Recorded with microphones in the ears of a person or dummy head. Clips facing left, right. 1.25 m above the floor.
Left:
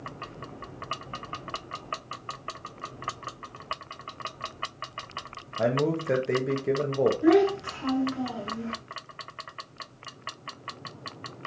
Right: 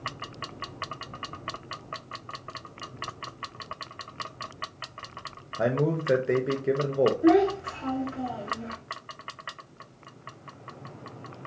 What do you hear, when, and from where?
5.6 s a man speaking: 5° right (ahead or behind), 0.6 m
7.2 s a child speaking: 70° left (ahead or behind), 1.1 m